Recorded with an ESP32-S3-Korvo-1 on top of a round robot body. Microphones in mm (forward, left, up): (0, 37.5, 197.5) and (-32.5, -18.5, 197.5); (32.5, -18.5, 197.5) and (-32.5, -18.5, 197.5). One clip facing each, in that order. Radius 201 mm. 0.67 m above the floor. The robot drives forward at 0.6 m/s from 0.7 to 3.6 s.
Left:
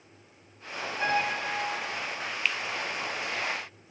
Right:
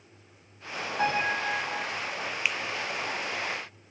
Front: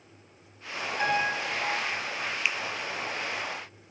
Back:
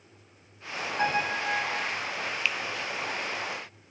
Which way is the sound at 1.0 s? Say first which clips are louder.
Right 1 dB, even; 120° right.